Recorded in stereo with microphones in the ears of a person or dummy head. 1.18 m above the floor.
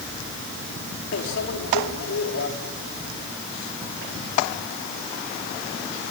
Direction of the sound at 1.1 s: 75° left (ahead or behind).